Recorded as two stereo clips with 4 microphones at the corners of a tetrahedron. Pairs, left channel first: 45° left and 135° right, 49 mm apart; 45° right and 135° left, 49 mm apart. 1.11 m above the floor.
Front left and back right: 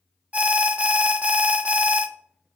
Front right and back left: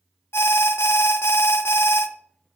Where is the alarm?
70° right, 0.7 m.